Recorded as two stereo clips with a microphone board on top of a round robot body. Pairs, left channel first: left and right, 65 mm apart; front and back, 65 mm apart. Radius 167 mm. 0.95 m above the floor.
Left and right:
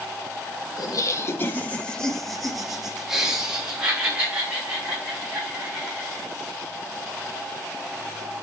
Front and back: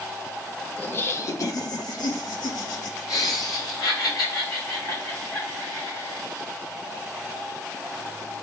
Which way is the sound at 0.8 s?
65° left.